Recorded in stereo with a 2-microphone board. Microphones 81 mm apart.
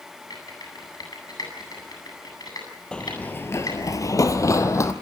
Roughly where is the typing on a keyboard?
Left.